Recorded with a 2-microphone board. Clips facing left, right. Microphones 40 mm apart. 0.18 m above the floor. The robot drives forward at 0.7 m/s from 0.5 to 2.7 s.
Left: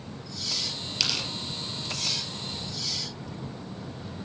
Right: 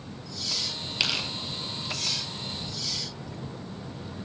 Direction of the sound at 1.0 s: 20° right (ahead or behind).